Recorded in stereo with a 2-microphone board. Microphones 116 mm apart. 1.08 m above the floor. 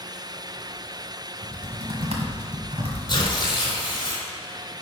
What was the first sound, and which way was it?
Typing on a keyboard, 65° right (ahead or behind).